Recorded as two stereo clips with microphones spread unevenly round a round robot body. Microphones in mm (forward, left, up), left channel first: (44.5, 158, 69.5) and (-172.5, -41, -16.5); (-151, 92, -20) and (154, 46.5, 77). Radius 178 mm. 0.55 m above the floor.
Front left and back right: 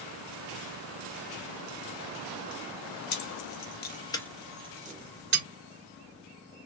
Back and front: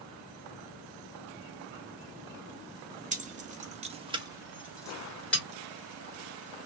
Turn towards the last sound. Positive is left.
turn(degrees=-115)